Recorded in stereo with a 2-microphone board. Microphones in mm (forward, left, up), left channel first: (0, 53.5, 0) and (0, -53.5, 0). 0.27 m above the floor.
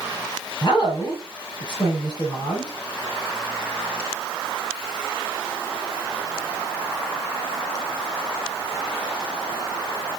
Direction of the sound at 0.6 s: 45° left (ahead or behind).